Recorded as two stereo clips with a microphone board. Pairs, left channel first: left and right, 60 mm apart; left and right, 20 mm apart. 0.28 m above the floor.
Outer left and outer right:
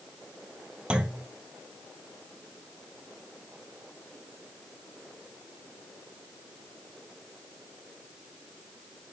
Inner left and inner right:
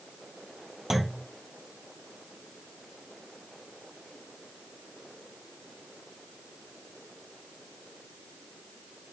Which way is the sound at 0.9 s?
20° right (ahead or behind).